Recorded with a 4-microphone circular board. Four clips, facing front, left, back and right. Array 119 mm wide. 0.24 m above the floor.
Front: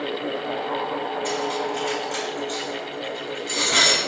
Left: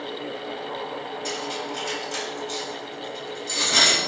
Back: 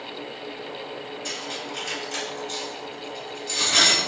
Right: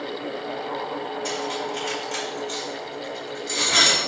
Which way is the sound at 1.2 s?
40° right.